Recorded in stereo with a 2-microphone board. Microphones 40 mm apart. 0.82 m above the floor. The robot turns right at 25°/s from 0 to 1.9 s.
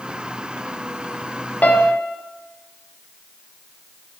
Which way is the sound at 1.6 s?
40° left (ahead or behind).